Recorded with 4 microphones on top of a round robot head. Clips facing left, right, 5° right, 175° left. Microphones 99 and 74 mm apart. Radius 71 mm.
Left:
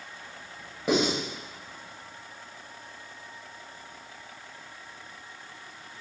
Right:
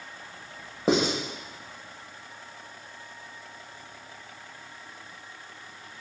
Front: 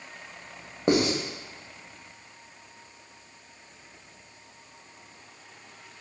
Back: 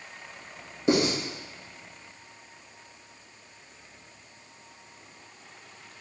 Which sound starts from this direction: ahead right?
Writing, at 0.9 s.